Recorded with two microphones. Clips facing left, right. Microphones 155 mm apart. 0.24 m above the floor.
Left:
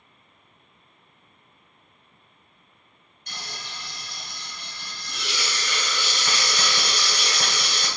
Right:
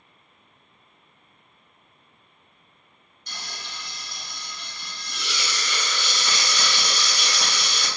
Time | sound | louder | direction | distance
3.3 | frying | left 1 dB | 55° left (ahead or behind) | 1.0 m